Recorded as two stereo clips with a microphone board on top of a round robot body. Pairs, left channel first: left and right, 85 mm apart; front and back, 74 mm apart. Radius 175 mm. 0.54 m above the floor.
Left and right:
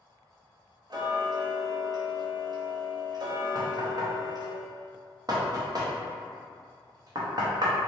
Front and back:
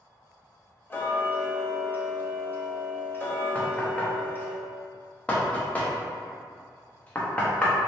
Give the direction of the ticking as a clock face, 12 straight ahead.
2 o'clock.